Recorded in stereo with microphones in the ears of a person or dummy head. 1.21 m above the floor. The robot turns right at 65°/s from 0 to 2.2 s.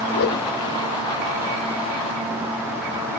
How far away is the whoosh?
About 1.0 m.